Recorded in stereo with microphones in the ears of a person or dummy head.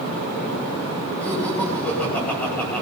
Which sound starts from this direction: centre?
Laughter, at 1.2 s.